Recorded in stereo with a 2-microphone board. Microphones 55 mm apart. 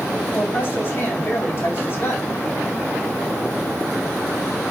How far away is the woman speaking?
About 3.5 m.